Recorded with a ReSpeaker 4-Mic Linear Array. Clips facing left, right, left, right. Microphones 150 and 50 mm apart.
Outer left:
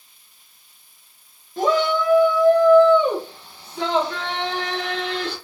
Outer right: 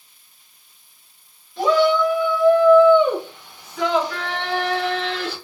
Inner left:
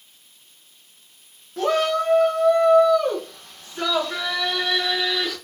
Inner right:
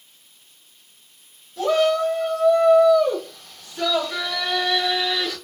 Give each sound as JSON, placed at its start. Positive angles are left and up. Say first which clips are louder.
{"t": 1.6, "sound": "a shout", "louder": "outer right 3 dB, inner right 2 dB", "side_deg": 45, "distance_m": 1.8}